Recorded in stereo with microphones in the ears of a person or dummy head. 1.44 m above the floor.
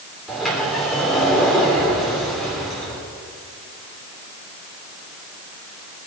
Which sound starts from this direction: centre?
A sliding door, at 0.3 s.